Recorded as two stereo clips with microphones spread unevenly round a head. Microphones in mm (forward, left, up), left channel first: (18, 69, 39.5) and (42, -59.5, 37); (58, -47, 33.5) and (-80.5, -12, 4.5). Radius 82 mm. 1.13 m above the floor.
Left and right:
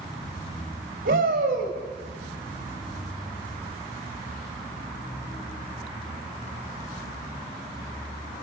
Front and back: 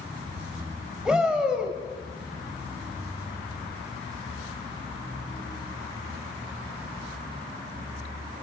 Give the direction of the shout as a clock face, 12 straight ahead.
4 o'clock.